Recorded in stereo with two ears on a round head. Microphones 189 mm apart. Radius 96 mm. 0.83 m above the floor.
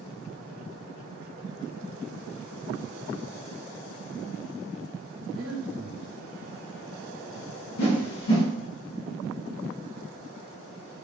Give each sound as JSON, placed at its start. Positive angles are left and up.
{"t": 5.3, "sound": "breathing", "side_deg": -50, "distance_m": 0.7}
{"t": 7.8, "sound": "a whoosh", "side_deg": 80, "distance_m": 1.0}